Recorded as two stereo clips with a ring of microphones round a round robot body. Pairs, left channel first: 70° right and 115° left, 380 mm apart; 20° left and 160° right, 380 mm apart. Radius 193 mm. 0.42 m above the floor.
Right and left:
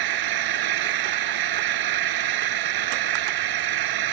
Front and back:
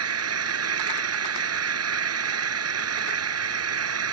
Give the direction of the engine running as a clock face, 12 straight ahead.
7 o'clock.